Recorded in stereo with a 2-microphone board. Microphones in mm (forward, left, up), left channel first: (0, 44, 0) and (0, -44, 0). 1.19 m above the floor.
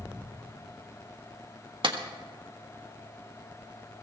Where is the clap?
65° right (ahead or behind), 1.4 m.